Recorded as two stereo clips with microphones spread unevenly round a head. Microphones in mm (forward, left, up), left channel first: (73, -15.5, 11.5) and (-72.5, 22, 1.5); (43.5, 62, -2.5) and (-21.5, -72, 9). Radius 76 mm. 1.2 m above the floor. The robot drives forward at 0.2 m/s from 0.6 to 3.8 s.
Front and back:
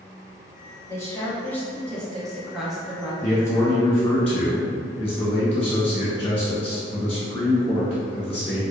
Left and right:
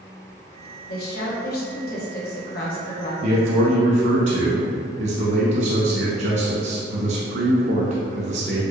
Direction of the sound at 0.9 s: 60° left.